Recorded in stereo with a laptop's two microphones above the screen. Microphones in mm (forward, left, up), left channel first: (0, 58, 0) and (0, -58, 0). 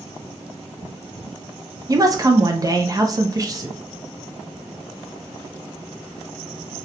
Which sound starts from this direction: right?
A woman speaking, at 1.9 s.